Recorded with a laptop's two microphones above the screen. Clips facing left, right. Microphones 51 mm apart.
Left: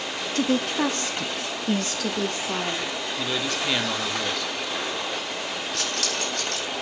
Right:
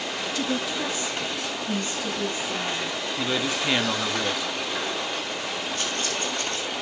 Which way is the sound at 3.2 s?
10° right (ahead or behind).